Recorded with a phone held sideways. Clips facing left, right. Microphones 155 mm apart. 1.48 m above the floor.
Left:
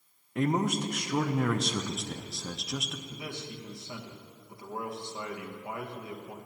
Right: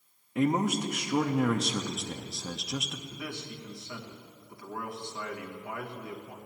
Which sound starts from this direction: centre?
A man speaking, at 0.3 s.